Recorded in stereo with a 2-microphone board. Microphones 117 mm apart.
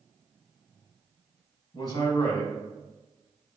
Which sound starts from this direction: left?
A man speaking, at 1.7 s.